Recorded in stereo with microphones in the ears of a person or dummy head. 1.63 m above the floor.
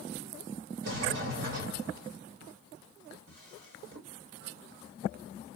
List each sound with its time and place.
0.8 s a sliding door: 65° right (ahead or behind), 1.3 m
3.3 s a drawer: 45° right (ahead or behind), 1.8 m